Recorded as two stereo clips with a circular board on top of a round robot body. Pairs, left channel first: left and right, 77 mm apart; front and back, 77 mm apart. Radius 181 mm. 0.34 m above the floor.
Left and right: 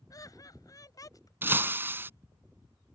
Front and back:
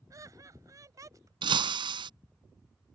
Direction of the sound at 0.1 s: 130° left.